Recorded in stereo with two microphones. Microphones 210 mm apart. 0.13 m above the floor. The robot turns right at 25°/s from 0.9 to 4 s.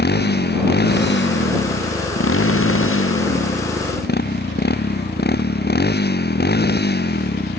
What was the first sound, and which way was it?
A motorcycle, 50° left.